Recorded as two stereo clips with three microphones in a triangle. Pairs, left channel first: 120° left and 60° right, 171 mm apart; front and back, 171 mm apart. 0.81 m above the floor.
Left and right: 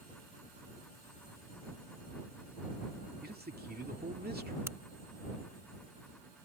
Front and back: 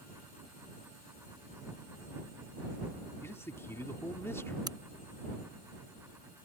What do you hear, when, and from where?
3.2 s a man speaking: 75° right
4.7 s a crack: 125° right